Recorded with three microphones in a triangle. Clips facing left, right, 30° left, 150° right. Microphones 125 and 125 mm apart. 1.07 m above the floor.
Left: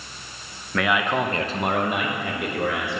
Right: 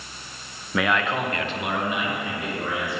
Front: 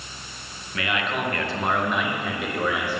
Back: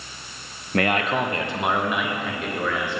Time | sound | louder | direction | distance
0.7 | a man speaking | left 1 dB, back 5 dB | 175° right | 0.6 m